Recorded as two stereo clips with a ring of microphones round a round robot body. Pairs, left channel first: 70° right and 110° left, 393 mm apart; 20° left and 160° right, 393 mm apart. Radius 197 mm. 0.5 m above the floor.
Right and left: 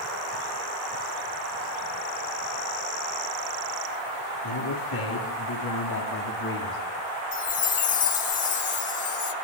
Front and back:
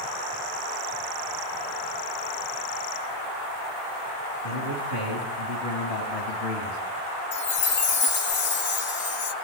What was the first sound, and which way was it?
A man speaking, 10° right.